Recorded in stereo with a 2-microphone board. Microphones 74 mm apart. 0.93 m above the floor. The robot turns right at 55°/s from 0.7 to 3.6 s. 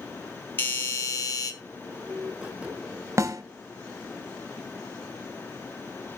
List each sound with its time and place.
0.6 s a doorbell: 35° left, 1.9 m; by 1.5 s 80° left, 1.9 m
3.2 s a snare drum: 35° right (ahead or behind), 1.0 m; by 3.4 s 45° right (ahead or behind), 1.0 m